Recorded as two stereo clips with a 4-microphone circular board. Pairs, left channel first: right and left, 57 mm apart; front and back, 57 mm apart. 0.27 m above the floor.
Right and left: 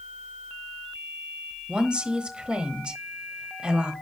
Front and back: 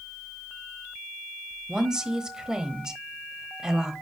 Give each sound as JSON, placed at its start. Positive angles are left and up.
{"t": 1.7, "sound": "a woman speaking", "azimuth_deg": 125, "distance_m": 1.0}